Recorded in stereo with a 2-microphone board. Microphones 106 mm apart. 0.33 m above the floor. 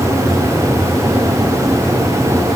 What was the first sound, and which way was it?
Only background noise.